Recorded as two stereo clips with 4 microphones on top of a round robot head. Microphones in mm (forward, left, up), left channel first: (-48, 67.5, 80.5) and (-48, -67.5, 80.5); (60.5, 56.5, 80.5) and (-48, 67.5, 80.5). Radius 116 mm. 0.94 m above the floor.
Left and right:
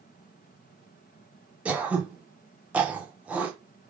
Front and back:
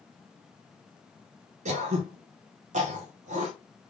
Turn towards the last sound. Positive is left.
turn(degrees=-170)